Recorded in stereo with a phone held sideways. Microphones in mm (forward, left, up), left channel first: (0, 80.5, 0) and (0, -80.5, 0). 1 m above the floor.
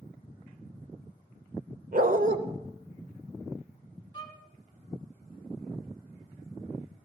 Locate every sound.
1.9 s a dog barking: 60° right (ahead or behind), 1.1 m
4.1 s a violin: 25° left (ahead or behind), 1.6 m